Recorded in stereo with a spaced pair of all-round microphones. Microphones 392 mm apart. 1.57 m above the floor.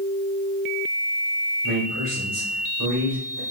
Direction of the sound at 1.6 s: 65° right (ahead or behind).